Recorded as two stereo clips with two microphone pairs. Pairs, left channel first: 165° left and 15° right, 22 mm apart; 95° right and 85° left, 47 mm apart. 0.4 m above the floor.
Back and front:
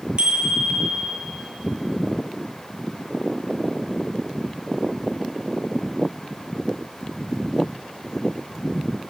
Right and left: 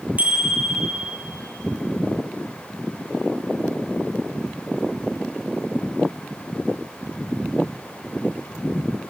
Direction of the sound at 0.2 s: 25° left.